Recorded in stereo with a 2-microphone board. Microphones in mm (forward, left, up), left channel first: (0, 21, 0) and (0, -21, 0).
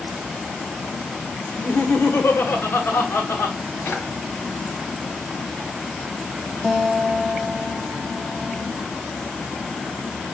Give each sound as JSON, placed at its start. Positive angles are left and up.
{"t": 1.5, "sound": "laughter", "side_deg": 60, "distance_m": 1.4}
{"t": 3.9, "sound": "a drawer", "side_deg": 80, "distance_m": 1.8}
{"t": 6.6, "sound": "a guitar", "side_deg": -5, "distance_m": 1.1}